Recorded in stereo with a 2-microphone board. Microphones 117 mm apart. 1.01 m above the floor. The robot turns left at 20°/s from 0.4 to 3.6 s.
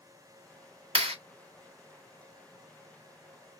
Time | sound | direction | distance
0.9 | a clap | 55° right (ahead or behind) | 1.8 m